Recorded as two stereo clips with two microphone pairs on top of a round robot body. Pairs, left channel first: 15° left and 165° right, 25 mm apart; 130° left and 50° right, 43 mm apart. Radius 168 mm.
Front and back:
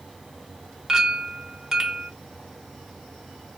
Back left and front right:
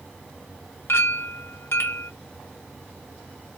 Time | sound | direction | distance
0.9 | a clink | 130° left | 1.0 m